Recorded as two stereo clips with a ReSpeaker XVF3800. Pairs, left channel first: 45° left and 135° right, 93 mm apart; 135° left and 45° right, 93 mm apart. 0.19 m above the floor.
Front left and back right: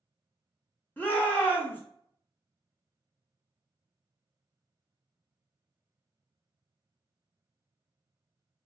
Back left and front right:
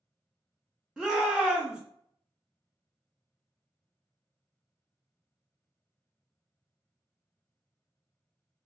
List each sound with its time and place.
1.0 s a shout: 25° left, 1.0 m